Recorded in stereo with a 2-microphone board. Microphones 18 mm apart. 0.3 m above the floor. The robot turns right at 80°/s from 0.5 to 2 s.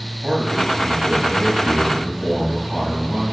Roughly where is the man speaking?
Right.